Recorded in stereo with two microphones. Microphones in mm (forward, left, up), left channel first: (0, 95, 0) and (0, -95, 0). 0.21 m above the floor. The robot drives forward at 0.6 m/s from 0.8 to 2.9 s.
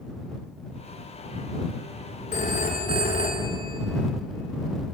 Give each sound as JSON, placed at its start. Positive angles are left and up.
{"t": 2.3, "sound": "a phone ringing", "side_deg": 45, "distance_m": 1.4}